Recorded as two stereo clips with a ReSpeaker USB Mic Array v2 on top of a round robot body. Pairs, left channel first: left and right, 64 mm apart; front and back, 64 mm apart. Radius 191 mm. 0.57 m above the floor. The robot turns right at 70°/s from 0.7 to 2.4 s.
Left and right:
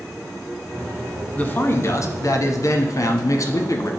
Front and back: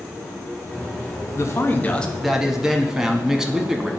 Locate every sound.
1.4 s a man speaking: 25° left, 1.1 m; by 3.9 s 100° left, 1.1 m